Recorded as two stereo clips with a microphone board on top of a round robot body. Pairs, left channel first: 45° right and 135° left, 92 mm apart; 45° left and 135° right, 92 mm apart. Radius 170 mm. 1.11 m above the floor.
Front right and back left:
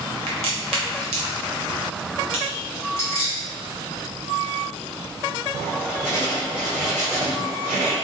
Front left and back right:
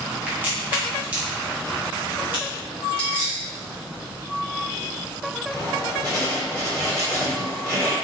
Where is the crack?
150° left, 0.8 m.